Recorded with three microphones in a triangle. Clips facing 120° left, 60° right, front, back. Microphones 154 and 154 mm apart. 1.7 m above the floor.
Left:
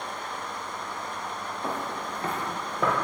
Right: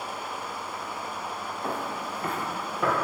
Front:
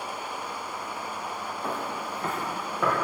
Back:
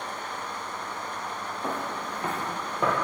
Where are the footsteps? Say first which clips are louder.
Even, back 1 dB; 130° left, 1.7 m; by 3.0 s 115° left, 2 m.